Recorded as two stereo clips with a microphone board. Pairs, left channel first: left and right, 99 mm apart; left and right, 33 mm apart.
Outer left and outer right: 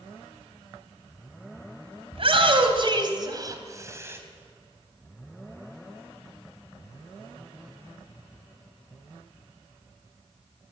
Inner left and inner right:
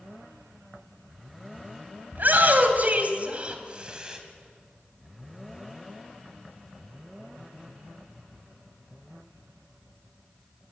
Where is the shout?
60° right (ahead or behind), 3 m; by 4.2 s 20° right (ahead or behind), 3 m.